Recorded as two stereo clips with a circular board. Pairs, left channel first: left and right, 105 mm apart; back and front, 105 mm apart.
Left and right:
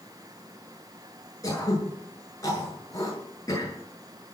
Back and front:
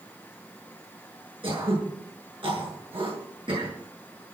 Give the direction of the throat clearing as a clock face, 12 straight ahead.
11 o'clock.